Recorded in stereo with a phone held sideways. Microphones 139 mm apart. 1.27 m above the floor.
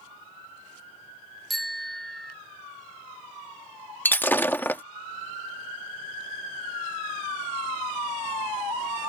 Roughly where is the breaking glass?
Centre.